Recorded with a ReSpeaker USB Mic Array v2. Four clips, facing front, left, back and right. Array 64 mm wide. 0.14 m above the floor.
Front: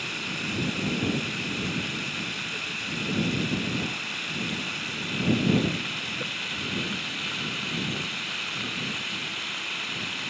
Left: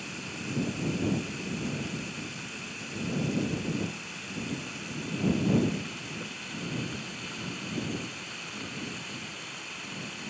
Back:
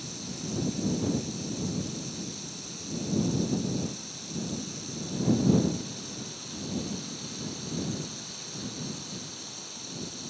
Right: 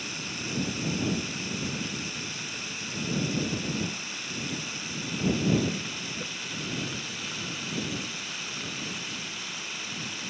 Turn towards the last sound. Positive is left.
turn(degrees=-10)